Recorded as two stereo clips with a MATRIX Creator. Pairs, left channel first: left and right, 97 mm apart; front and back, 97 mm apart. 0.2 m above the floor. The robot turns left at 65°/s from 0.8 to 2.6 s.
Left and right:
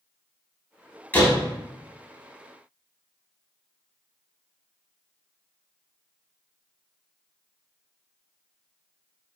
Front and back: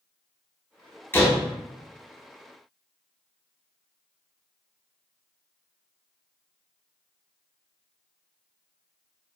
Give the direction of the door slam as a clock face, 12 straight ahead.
11 o'clock.